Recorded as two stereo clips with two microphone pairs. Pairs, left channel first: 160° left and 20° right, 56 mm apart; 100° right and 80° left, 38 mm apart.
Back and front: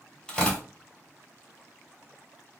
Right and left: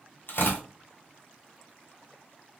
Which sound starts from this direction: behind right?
Tearing paper, at 0.3 s.